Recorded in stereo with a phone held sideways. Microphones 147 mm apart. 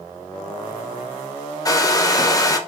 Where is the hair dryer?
25° left (ahead or behind), 0.6 m.